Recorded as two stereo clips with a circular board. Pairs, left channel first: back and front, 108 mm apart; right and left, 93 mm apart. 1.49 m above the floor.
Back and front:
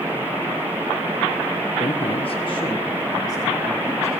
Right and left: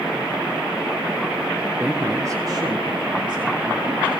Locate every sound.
1.8 s a man speaking: 165° left, 1.1 m; by 4.1 s 115° left, 3.5 m